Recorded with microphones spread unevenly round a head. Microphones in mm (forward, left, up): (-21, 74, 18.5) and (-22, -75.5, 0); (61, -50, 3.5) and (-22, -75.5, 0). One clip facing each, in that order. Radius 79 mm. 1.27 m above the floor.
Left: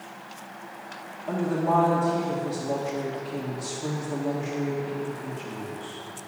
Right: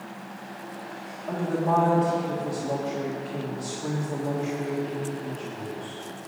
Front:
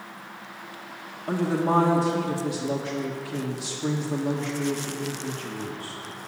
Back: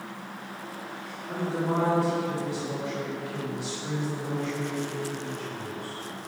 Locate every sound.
1.3 s a woman speaking: 5° left, 1.7 m